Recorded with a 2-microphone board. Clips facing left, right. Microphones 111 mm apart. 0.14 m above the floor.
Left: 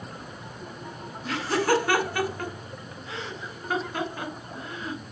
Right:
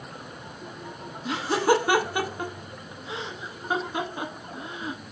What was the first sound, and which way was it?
Laughter, 20° right (ahead or behind).